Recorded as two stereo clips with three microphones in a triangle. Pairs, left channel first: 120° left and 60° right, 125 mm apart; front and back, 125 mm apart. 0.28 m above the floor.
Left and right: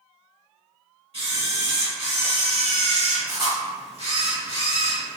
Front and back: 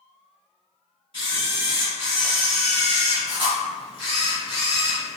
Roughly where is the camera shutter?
Ahead right.